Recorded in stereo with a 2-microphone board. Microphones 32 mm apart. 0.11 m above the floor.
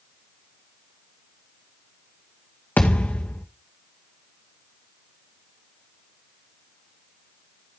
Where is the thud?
65° left (ahead or behind), 2.5 m.